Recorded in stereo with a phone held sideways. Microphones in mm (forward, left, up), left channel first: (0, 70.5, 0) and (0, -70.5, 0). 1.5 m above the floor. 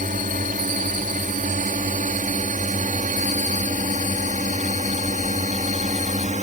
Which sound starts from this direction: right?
A drone, at 0.0 s.